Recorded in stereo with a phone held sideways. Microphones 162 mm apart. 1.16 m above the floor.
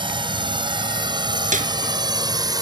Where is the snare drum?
50° right (ahead or behind).